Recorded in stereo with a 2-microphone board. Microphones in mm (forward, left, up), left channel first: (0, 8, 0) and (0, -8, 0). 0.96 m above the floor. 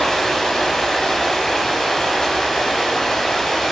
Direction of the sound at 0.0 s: 30° left (ahead or behind).